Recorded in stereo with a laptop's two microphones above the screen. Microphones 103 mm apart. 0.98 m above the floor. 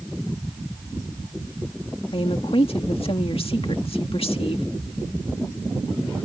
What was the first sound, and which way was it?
A woman speaking, 65° left (ahead or behind).